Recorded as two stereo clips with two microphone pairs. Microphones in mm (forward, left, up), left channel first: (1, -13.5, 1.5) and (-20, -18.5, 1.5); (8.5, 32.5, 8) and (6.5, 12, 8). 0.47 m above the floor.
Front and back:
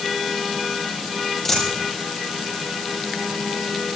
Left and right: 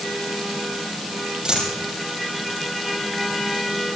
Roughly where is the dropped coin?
Ahead right.